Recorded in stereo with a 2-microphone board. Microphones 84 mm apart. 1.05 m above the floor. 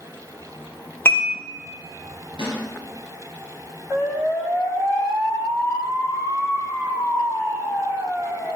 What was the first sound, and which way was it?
Dishes clattering, 30° left (ahead or behind).